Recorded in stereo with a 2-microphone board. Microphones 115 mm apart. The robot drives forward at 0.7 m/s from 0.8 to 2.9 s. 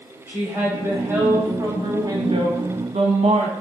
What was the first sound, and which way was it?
A woman speaking, 20° right (ahead or behind).